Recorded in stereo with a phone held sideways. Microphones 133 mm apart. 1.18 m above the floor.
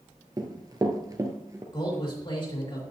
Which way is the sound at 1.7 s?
35° left (ahead or behind).